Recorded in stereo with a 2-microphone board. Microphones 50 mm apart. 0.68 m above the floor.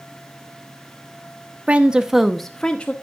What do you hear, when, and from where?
1.7 s a woman speaking: 25° right (ahead or behind), 0.9 m; by 2.9 s 30° left (ahead or behind), 0.9 m